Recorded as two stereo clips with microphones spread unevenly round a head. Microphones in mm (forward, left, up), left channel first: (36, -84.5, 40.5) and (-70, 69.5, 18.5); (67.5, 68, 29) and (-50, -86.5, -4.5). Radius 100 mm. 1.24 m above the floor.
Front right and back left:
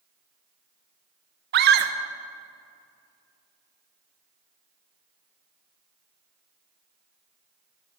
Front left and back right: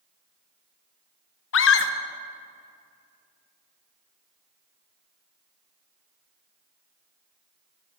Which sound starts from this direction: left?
A scream, at 1.5 s.